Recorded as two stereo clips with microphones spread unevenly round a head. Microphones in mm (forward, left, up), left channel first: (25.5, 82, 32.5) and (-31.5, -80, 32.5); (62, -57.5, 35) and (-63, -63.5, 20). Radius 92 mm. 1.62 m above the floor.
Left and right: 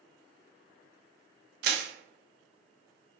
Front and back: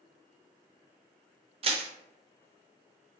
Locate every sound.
1.6 s crushing: 135° right, 0.6 m